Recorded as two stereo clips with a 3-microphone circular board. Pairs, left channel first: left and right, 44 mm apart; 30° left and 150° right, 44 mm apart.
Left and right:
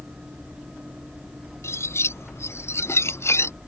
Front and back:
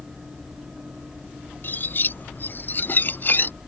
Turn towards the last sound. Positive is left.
turn(degrees=75)